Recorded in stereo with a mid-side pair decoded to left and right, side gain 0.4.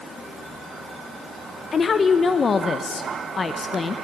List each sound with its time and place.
1.7 s a woman speaking: 40° left, 0.7 m